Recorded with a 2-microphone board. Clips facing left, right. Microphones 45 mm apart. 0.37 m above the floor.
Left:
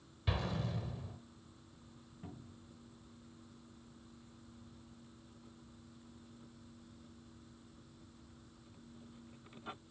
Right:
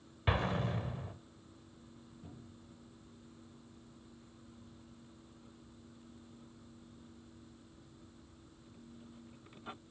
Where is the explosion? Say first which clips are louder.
Right 5 dB; 40° right (ahead or behind), 0.9 m.